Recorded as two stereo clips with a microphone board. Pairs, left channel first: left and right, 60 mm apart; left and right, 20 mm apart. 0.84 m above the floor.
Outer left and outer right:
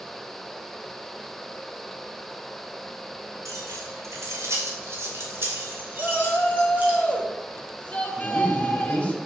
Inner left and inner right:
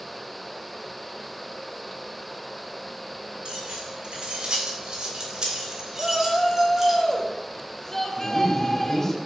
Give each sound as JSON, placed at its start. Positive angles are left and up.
{"t": 3.5, "sound": "keys jangling", "side_deg": -65, "distance_m": 3.5}
{"t": 6.0, "sound": "a shout", "side_deg": 30, "distance_m": 1.6}
{"t": 8.2, "sound": "a man speaking", "side_deg": 20, "distance_m": 4.5}